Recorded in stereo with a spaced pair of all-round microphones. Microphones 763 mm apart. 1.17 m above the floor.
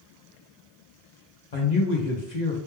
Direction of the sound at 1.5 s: 60° left (ahead or behind).